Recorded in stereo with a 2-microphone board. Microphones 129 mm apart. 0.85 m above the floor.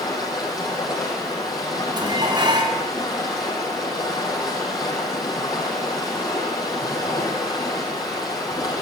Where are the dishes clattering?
35° right (ahead or behind), 4 m.